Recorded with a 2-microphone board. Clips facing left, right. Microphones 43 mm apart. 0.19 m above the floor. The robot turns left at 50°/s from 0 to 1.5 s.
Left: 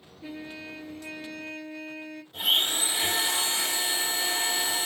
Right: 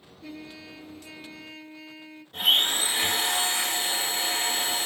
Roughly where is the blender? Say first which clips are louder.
Right 3 dB; right.